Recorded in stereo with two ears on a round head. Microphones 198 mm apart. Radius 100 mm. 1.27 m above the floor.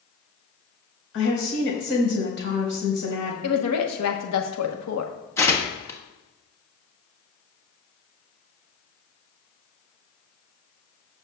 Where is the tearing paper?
15° left (ahead or behind), 1.4 m.